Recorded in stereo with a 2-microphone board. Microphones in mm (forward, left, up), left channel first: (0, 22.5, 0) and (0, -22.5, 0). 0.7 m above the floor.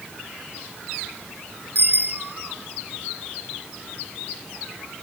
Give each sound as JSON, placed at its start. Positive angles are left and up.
{"t": 1.8, "sound": "a bicycle bell", "side_deg": -50, "distance_m": 5.0}